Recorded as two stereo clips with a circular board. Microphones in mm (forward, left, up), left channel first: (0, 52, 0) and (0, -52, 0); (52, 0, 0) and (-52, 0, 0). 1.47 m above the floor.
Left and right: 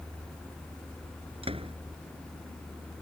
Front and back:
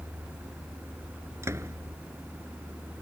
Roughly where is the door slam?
Behind right.